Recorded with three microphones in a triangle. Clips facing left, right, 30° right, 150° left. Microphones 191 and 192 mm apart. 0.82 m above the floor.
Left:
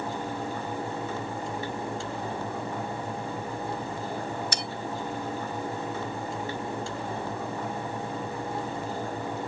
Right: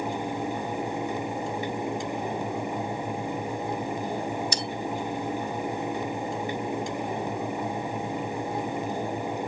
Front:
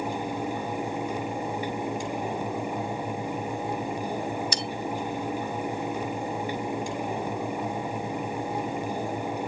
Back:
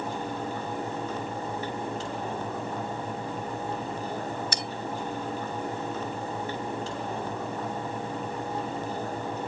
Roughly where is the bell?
Behind left.